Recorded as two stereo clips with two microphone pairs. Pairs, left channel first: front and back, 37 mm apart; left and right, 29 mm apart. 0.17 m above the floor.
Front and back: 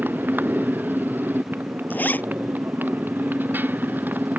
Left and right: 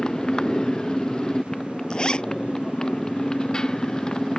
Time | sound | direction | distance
0.0 | a motorcycle | 155° left | ?
1.9 | a zipper | 30° left | ?